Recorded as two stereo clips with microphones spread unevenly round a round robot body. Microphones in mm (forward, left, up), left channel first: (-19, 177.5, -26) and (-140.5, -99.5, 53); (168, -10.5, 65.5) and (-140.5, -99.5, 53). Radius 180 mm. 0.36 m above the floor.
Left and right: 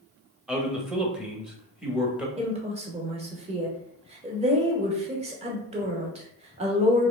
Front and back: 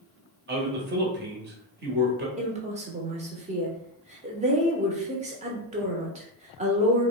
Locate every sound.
0.5 s a man speaking: 150° left, 1.2 m
2.4 s a woman speaking: 170° left, 1.0 m